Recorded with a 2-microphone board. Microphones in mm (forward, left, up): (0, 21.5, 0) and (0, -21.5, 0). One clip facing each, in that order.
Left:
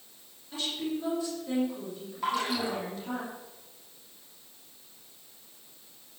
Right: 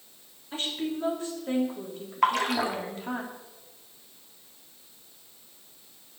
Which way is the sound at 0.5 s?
40° right (ahead or behind).